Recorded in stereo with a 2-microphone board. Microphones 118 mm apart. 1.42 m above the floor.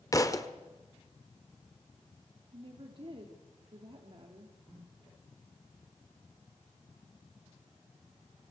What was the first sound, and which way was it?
A thud, 30° left (ahead or behind).